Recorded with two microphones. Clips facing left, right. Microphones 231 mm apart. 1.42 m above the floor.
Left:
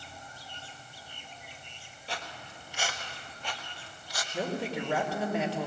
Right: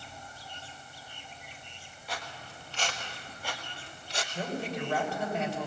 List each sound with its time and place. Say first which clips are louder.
2.1 s footsteps: even; 30° left (ahead or behind), 2.5 m; by 4.2 s 25° right (ahead or behind), 2.5 m
4.3 s a woman speaking: left 3 dB; 75° left (ahead or behind), 4.5 m